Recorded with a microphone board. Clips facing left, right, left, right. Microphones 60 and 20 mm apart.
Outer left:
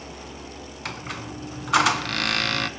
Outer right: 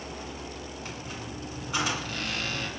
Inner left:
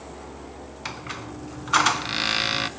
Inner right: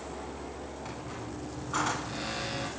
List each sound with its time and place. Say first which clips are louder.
0.8 s a squeak: outer left 5 dB, inner left 5 dB; 75° left (ahead or behind), 2 m